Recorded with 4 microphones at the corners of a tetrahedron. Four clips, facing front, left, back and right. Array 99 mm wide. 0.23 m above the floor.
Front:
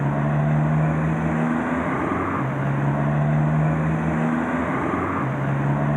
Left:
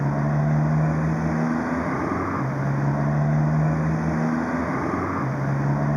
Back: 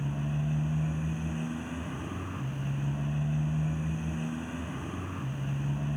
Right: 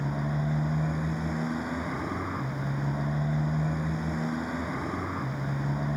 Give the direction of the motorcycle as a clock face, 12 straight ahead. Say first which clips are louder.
Left 7 dB, front 11 dB; 11 o'clock.